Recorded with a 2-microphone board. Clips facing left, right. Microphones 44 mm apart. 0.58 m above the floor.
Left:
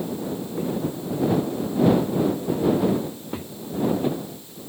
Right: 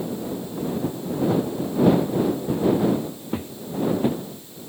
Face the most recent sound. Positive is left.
turn(degrees=-10)  # may be behind; listen again after turning